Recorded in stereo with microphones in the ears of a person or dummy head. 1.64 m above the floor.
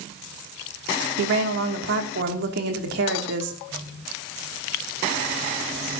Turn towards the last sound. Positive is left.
turn(degrees=-75)  # may be behind; listen again after turning